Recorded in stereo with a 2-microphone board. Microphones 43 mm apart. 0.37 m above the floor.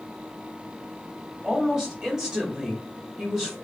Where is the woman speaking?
15° right (ahead or behind), 1.5 m.